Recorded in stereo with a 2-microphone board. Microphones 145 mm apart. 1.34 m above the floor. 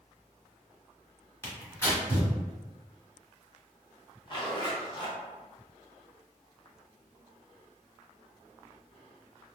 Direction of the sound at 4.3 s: 30° left (ahead or behind).